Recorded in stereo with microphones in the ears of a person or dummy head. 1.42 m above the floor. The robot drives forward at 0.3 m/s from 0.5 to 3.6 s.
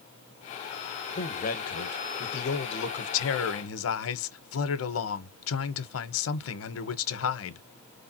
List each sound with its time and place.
1.1 s a man speaking: 40° left (ahead or behind), 1.1 m; by 7.7 s 70° left (ahead or behind), 0.8 m